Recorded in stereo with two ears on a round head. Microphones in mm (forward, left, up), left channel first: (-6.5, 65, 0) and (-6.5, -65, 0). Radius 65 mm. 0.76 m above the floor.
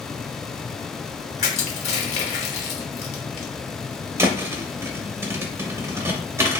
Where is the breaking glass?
No breaking glass in this recording.